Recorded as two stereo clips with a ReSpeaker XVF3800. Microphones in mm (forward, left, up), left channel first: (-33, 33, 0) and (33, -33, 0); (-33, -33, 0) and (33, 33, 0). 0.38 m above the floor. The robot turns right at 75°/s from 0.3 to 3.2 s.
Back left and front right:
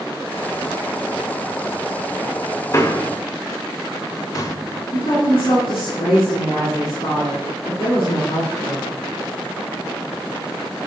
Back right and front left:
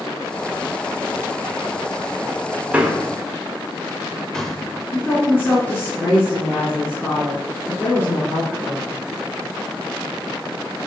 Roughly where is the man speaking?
Left.